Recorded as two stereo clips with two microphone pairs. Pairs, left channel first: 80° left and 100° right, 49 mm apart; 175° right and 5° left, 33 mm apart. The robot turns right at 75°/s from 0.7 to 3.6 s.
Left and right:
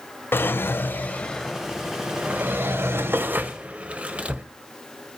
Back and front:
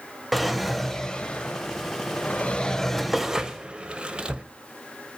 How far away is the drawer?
About 0.5 m.